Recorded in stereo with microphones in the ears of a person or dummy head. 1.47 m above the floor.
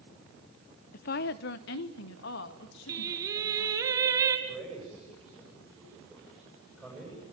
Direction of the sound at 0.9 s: 45° left (ahead or behind).